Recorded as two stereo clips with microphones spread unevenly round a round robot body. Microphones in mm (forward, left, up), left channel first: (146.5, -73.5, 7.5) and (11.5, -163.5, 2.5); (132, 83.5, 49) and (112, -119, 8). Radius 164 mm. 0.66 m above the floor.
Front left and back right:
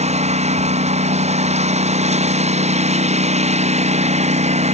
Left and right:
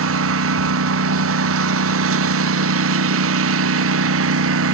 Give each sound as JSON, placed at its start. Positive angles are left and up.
{"t": 0.0, "sound": "a lawn mower", "azimuth_deg": -100}